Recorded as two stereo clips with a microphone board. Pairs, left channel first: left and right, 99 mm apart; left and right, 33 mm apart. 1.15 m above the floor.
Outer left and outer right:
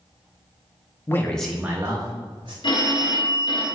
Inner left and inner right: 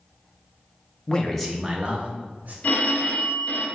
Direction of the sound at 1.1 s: 25° left (ahead or behind).